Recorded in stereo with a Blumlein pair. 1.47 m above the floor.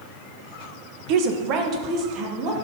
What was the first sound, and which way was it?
A woman speaking, 40° right.